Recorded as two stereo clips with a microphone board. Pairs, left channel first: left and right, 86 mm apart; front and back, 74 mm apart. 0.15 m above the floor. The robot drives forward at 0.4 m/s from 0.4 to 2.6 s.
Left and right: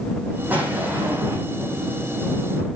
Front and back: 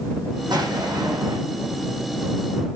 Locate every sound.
0.5 s an explosion: 160° right, 4.5 m